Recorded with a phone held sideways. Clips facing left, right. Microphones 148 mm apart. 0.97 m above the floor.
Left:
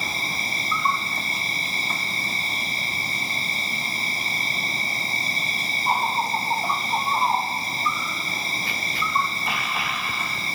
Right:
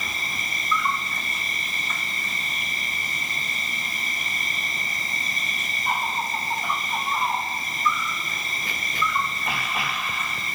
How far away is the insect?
About 2.5 m.